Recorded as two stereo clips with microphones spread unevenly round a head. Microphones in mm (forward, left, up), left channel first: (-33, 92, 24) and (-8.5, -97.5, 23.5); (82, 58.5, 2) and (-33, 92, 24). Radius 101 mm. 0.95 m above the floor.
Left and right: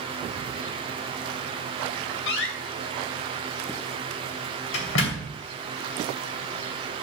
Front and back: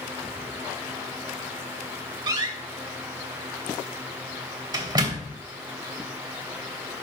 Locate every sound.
2.3 s a door slam: 110° left, 3 m